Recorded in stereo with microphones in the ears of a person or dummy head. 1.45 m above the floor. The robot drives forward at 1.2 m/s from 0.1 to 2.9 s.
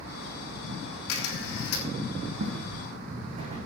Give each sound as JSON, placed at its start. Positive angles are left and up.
{"t": 1.1, "sound": "a camera shutter", "side_deg": 85, "distance_m": 5.5}
{"t": 2.4, "sound": "footsteps", "side_deg": -60, "distance_m": 4.0}